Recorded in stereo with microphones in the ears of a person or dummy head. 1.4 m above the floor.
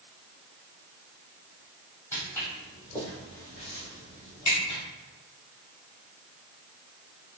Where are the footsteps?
10° left (ahead or behind), 1.9 m; by 4.8 s 25° left (ahead or behind), 1.6 m.